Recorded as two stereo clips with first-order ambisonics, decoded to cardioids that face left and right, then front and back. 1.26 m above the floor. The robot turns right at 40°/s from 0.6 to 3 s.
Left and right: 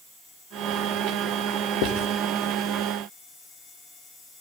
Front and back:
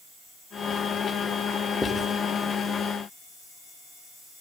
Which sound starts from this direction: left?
Writing, at 1.8 s.